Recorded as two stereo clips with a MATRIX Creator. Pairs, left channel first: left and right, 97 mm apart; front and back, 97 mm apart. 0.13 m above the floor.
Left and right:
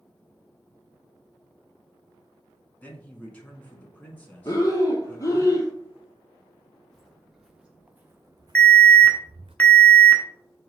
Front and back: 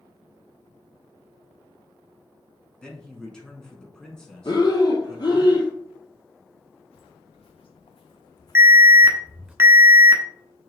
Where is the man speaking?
65° left, 1.1 m.